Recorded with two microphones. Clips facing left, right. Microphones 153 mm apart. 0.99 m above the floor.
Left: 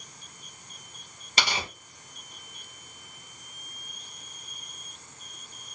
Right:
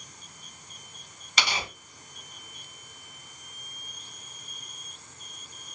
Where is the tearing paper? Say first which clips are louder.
Left 1 dB; 35° left (ahead or behind), 3 m.